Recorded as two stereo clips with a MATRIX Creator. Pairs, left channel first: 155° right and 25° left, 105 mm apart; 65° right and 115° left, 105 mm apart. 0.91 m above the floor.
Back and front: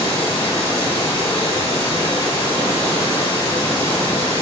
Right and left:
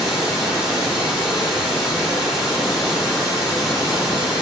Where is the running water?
160° right, 1.3 m.